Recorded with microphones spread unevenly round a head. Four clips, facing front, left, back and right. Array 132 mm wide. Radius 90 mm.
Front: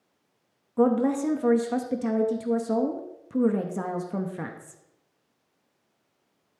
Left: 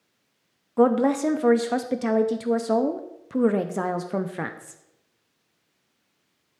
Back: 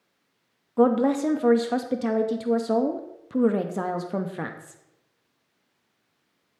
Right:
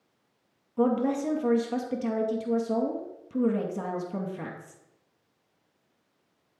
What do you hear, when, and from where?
0.8 s a woman speaking: 20° left, 0.6 m